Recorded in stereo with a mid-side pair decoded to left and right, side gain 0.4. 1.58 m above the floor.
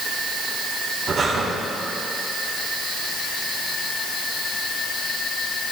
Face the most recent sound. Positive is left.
turn(degrees=-60)